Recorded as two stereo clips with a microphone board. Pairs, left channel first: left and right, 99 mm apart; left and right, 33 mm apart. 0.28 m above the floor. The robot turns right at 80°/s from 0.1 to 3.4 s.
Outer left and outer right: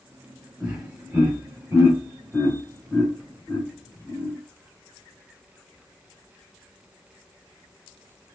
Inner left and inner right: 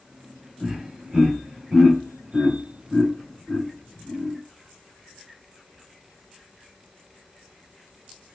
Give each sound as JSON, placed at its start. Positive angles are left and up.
{"t": 0.6, "sound": "laughter", "side_deg": -5, "distance_m": 1.3}